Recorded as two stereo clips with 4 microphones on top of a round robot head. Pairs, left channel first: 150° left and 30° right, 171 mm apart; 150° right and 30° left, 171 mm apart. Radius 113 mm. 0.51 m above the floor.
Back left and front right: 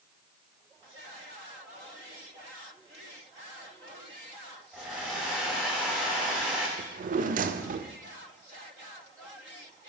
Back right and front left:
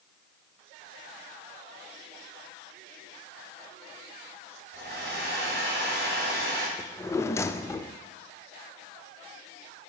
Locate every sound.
4.7 s a hair dryer: 55° left, 3 m
6.8 s a drawer: 75° right, 0.5 m